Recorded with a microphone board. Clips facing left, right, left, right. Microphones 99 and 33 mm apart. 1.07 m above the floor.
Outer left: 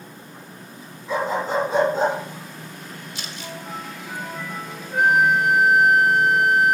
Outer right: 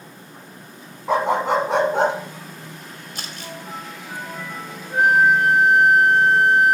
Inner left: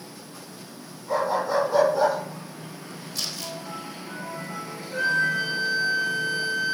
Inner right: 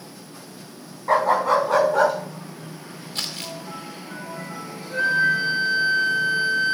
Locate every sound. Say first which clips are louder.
1.1 s a dog barking: outer right 4 dB, inner right 6 dB; 70° right (ahead or behind), 2.0 m; by 2.1 s 75° right (ahead or behind), 3 m
3.1 s crumpling: outer right 2 dB, inner right 2 dB; 50° right (ahead or behind), 2 m
4.9 s a flute: outer right 2 dB, inner right 3 dB; 25° right (ahead or behind), 4 m